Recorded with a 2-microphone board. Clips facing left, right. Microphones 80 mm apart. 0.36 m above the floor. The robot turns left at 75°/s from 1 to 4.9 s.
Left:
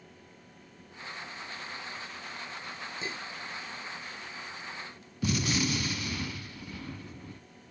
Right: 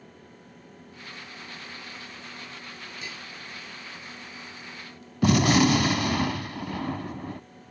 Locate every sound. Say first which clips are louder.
3.0 s dishes clattering: left 4 dB; 25° left (ahead or behind); by 3.3 s 45° left (ahead or behind)
5.2 s a gunshot: right 10 dB; 75° right (ahead or behind)